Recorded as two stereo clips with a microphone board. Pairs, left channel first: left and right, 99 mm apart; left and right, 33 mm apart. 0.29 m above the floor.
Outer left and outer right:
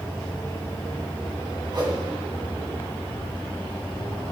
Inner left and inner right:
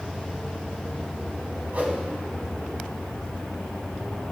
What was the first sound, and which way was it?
A whoosh, 50° right (ahead or behind).